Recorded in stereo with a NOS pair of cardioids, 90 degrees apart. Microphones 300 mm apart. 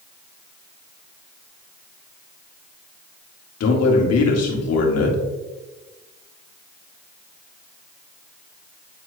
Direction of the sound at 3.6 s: 60° left.